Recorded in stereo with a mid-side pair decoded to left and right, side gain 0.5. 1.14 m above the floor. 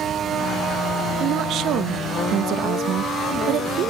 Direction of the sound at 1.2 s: 65° right.